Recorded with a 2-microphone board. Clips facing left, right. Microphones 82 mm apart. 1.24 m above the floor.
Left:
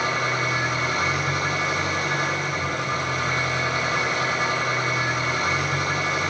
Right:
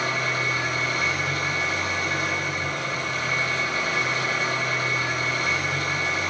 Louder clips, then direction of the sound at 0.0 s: Left 2 dB; 65° left (ahead or behind).